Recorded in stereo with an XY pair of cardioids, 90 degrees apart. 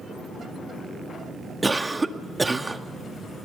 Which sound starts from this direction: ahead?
A cough, at 1.6 s.